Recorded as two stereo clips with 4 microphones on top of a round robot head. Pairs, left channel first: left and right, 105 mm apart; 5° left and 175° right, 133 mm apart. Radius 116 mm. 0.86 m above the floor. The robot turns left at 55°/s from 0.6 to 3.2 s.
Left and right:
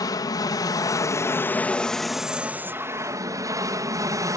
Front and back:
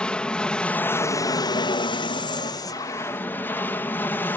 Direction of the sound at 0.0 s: 80° left.